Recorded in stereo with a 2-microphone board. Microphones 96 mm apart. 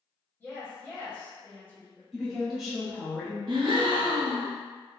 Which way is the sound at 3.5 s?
60° right (ahead or behind).